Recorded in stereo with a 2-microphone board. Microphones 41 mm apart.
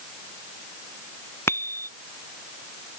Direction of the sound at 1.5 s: 80° left.